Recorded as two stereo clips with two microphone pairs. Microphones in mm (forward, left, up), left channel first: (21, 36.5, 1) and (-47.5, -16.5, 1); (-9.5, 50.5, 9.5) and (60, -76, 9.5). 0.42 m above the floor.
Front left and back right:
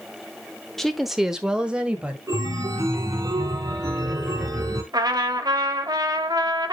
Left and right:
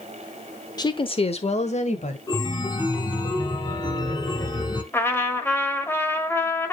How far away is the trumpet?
About 1.3 m.